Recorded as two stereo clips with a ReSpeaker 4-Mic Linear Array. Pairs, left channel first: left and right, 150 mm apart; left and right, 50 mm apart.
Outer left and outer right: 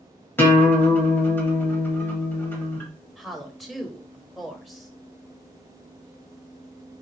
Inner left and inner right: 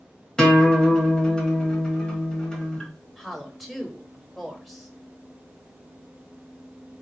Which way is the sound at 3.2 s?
Centre (ahead or behind).